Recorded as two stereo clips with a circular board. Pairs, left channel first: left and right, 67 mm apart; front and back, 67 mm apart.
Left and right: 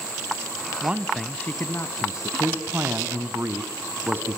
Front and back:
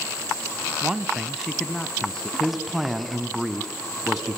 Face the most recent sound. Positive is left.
turn(degrees=-100)